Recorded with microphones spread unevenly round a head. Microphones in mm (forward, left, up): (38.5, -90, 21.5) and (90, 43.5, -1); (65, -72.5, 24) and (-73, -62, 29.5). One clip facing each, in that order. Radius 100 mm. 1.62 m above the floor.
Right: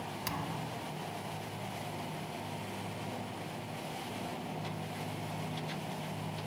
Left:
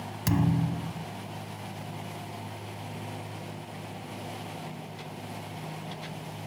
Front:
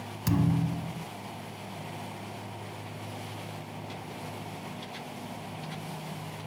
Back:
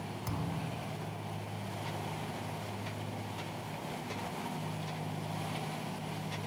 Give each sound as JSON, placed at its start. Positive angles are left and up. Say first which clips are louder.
{"t": 0.3, "sound": "a thud", "louder": "left 15 dB, front 13 dB", "azimuth_deg": 30}